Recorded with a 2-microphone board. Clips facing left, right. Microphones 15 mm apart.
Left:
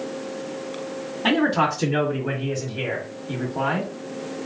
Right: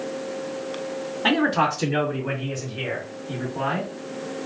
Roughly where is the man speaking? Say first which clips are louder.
Even; centre.